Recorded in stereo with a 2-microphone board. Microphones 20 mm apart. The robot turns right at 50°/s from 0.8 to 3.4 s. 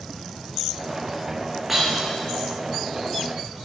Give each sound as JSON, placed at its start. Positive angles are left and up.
{"t": 1.7, "sound": "breaking glass", "side_deg": -5, "distance_m": 8.5}